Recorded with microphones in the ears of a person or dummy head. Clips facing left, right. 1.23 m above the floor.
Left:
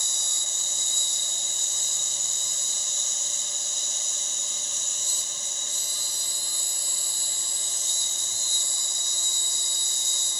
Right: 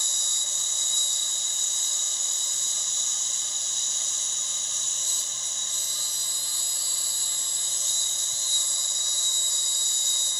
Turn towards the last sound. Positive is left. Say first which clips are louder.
# left 2 dB
turn(degrees=40)  # may be behind; listen again after turning